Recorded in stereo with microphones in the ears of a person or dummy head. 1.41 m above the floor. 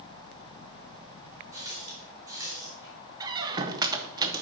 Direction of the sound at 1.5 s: 15° right (ahead or behind).